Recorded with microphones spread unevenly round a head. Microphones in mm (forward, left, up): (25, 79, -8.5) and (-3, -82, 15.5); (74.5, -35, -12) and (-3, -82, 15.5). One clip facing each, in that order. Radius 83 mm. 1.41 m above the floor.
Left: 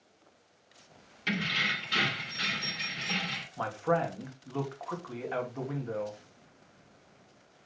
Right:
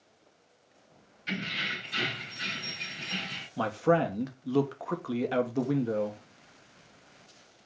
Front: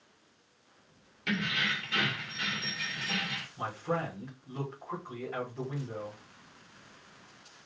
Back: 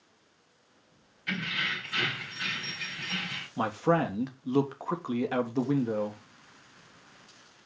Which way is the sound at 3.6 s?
150° right.